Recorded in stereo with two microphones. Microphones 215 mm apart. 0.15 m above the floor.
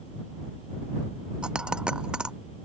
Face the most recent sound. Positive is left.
turn(degrees=-5)  # may be behind; listen again after turning